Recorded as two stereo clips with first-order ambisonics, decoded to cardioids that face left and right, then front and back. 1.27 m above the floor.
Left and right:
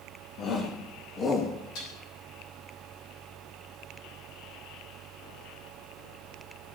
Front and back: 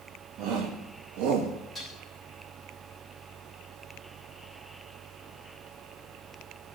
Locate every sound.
0.4 s a shout: 135° left, 2.5 m; by 1.5 s 165° left, 2.0 m
1.8 s dishes clattering: 90° left, 7.5 m